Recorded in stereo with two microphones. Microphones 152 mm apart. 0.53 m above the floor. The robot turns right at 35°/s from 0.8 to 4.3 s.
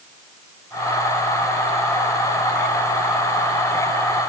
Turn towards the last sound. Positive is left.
No sound to turn to.